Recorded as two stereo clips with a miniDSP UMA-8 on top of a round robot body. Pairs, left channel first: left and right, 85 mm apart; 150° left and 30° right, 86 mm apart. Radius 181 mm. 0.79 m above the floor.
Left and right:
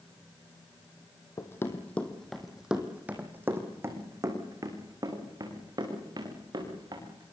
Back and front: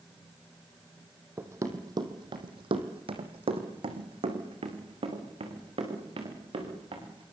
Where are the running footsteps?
35° left, 2.5 m; by 7.3 s 50° right, 8.5 m.